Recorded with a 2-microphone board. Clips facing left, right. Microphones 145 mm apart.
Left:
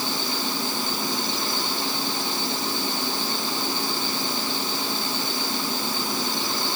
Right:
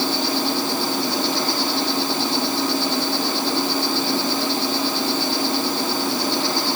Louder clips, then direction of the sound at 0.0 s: Right 7 dB; 75° right (ahead or behind).